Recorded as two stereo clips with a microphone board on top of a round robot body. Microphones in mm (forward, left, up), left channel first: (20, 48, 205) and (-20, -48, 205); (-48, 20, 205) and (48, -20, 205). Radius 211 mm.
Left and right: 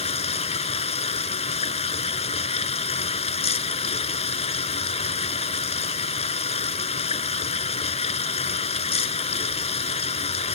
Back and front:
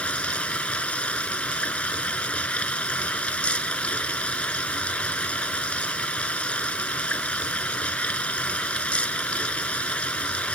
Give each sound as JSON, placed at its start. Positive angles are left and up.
{"t": 0.0, "sound": "running water", "azimuth_deg": 80}